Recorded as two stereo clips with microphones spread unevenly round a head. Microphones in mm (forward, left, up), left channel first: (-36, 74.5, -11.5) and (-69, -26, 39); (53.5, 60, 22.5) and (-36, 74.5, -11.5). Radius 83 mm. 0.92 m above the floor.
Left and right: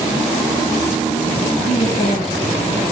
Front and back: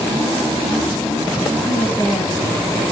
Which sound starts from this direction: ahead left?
A woman speaking, at 1.7 s.